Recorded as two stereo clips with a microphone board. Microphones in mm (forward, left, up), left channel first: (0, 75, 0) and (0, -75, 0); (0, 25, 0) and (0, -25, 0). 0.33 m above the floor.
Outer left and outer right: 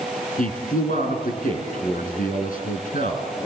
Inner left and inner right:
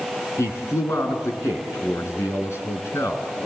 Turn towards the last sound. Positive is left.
turn(degrees=60)  # may be behind; listen again after turning